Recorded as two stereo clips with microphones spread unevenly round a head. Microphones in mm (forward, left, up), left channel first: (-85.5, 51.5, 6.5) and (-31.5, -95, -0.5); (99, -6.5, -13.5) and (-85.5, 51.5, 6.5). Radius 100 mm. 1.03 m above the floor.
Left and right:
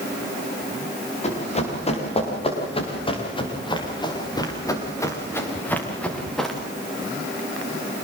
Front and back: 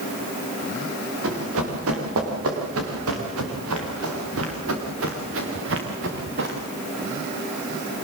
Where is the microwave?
No microwave in this recording.